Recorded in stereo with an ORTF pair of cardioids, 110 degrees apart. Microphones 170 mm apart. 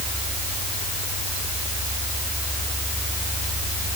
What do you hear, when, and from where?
Only background noise.